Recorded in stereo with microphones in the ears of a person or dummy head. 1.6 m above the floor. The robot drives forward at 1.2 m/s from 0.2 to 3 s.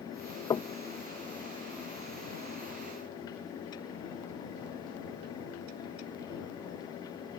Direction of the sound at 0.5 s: 30° left (ahead or behind).